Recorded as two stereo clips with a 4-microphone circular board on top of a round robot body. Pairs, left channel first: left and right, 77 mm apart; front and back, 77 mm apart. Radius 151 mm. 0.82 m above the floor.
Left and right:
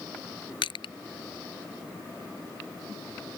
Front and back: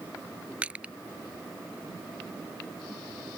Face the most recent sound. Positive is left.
turn(degrees=105)